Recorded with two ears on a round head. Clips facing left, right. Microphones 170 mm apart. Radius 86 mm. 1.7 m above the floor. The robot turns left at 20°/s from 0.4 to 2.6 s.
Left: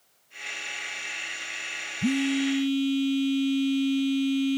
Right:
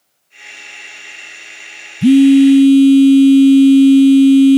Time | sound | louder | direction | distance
2.0 | a phone buzzing | right 19 dB | 75° right (ahead or behind) | ?